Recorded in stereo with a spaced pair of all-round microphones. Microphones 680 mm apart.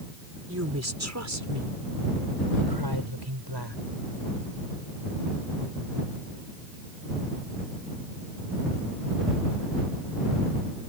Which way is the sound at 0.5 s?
20° right (ahead or behind).